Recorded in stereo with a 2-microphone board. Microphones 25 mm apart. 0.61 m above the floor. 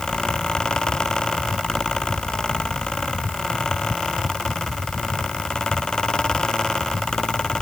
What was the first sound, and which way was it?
Only background noise.